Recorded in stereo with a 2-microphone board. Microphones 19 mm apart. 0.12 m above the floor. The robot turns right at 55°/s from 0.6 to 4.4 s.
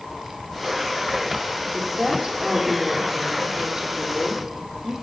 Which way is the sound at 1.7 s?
175° right.